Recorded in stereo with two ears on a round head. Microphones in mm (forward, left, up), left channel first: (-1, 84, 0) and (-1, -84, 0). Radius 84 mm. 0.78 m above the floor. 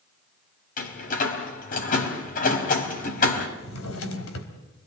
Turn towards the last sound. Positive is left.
turn(degrees=85)